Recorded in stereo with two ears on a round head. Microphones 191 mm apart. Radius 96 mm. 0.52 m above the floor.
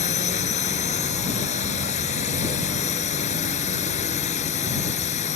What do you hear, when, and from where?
0.0 s a drone: 35° left (ahead or behind)